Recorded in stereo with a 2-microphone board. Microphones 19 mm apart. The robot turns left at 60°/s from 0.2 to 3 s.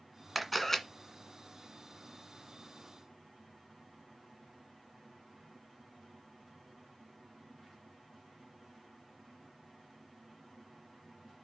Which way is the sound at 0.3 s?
Centre (ahead or behind).